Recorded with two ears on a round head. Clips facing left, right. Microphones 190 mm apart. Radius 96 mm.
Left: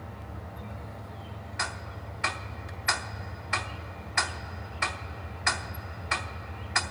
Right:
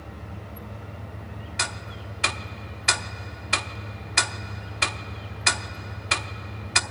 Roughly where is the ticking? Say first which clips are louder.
Right 1 dB; right.